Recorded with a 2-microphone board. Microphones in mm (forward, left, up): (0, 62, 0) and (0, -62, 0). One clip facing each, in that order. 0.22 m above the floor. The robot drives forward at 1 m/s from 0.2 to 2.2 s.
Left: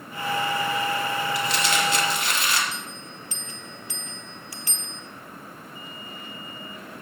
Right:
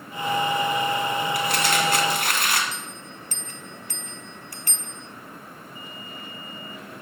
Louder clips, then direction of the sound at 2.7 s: Even; 55° right (ahead or behind).